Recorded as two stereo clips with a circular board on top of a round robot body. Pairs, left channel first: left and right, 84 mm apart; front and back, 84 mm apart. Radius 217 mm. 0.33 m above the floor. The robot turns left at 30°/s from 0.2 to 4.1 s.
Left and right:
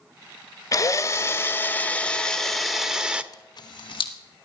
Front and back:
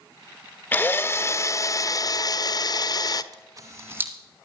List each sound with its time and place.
0.7 s a drill: 60° left, 1.0 m; by 3.2 s 15° right, 1.0 m
3.3 s a camera shutter: 135° left, 1.1 m; by 4.1 s 110° left, 1.1 m